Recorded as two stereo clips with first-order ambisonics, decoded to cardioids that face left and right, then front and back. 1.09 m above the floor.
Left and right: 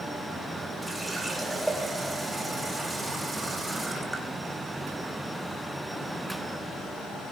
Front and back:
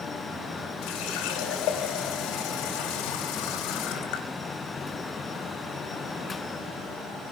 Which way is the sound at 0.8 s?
5° right.